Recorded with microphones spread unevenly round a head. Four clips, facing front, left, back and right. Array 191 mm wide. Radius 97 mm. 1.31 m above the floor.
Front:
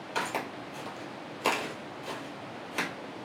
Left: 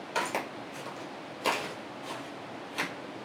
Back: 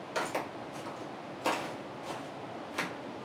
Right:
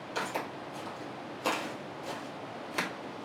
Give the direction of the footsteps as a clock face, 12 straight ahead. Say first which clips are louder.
Left 3 dB, front 1 dB; 10 o'clock.